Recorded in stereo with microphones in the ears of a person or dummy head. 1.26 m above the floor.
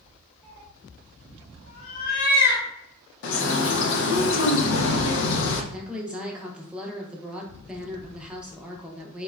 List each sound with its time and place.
0.4 s a cat meowing: centre (ahead or behind), 0.9 m; by 2.6 s 65° left (ahead or behind), 1.0 m
3.2 s a bird: 70° left (ahead or behind), 0.5 m
5.7 s a woman speaking: 5° right (ahead or behind), 0.6 m